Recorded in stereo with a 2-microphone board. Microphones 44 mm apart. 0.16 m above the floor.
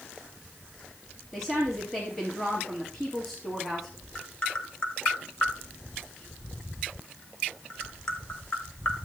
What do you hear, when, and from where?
1.3 s a woman speaking: 5° left (ahead or behind), 3.5 m
4.2 s tapping: 20° left (ahead or behind), 1.4 m